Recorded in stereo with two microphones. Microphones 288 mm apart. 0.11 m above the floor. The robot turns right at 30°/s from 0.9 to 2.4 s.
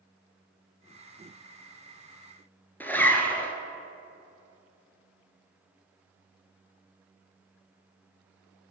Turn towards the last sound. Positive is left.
turn(degrees=5)  # may be behind; listen again after turning